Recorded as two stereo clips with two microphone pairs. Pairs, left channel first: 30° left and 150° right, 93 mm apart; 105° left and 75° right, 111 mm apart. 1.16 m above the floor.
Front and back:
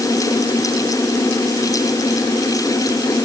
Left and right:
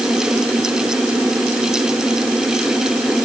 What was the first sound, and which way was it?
Only background noise.